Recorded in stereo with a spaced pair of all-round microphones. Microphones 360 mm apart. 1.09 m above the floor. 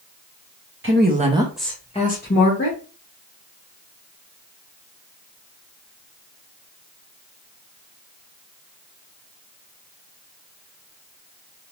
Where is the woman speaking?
35° right (ahead or behind), 0.7 m; by 2.8 s 40° left (ahead or behind), 1.0 m.